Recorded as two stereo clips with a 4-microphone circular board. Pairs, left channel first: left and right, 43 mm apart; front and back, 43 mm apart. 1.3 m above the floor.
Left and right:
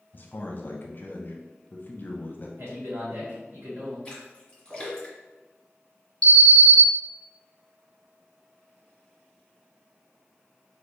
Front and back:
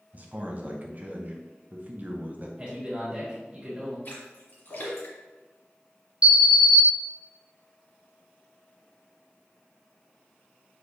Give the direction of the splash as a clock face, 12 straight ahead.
11 o'clock.